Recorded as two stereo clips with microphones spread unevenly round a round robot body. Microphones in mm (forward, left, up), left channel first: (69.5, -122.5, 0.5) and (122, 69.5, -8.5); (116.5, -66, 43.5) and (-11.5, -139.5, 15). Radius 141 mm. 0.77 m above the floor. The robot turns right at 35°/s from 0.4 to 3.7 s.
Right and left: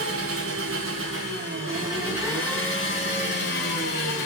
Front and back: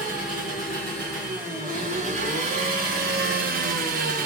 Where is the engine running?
95° left, 0.8 m; by 4.3 s 150° right, 0.8 m.